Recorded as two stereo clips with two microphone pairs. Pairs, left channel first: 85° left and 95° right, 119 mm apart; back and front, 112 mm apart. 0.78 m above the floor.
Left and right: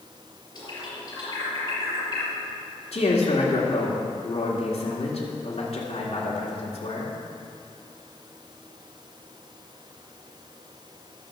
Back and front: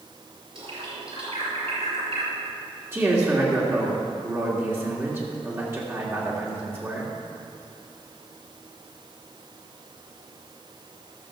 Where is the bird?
30° left, 4.5 m.